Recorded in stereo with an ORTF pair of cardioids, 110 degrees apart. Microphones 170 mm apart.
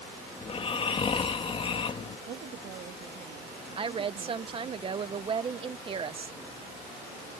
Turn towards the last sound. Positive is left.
turn(degrees=-30)